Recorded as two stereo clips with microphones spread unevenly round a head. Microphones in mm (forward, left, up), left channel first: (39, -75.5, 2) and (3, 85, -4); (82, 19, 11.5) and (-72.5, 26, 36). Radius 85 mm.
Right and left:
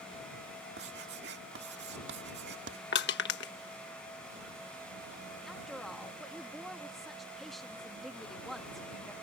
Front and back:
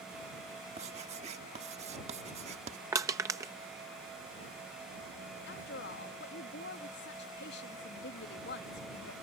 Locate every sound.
0.8 s writing: 130° left
2.9 s crushing: 110° right
5.5 s a woman speaking: 10° left